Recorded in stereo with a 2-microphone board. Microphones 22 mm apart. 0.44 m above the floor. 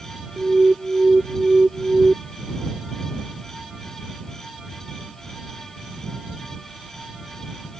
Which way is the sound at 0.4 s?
70° right (ahead or behind).